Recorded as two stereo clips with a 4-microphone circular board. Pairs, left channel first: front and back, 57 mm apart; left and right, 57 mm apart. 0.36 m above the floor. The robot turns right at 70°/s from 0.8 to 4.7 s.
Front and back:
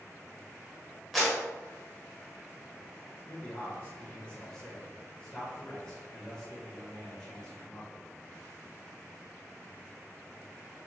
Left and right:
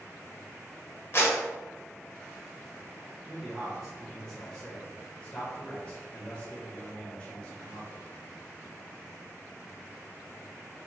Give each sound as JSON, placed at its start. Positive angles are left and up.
{"t": 1.1, "sound": "a clap", "azimuth_deg": 85, "distance_m": 1.2}
{"t": 3.3, "sound": "a man speaking", "azimuth_deg": -50, "distance_m": 1.0}